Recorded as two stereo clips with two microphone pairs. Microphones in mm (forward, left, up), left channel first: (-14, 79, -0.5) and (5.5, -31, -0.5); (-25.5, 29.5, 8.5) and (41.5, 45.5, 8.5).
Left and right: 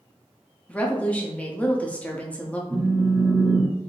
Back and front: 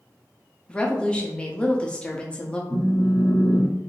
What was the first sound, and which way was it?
A woman speaking, 145° left.